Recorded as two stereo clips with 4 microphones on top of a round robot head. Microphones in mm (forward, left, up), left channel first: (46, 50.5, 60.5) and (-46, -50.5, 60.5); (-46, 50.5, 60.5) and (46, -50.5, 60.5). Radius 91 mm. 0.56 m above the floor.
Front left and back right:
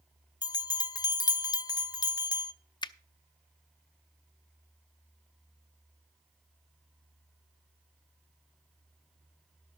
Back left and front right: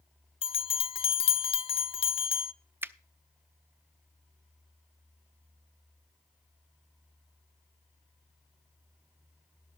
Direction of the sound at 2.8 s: 15° left.